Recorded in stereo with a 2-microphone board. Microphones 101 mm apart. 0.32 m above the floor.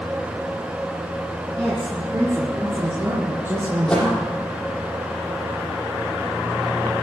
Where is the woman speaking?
15° right (ahead or behind), 8 m; by 4.2 s 30° right (ahead or behind), 5 m.